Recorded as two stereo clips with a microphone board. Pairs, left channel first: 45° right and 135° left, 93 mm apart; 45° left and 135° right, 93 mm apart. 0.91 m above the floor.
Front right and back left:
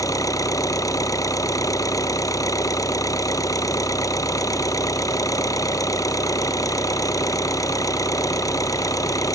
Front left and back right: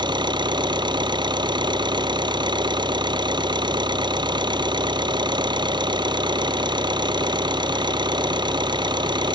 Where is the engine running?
100° right.